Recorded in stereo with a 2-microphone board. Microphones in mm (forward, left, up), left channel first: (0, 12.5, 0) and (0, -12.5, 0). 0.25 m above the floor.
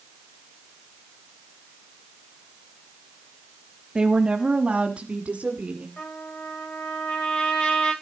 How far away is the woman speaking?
About 1.1 m.